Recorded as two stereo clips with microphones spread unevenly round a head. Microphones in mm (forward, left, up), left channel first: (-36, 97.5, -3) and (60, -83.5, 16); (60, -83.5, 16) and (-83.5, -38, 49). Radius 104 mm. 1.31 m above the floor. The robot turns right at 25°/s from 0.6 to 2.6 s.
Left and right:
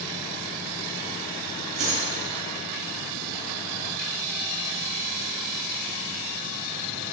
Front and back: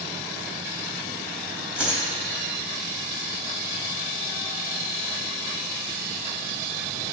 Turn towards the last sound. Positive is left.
turn(degrees=-80)